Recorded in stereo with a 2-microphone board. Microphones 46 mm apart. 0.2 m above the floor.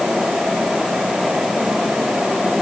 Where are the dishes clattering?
No dishes clattering in this recording.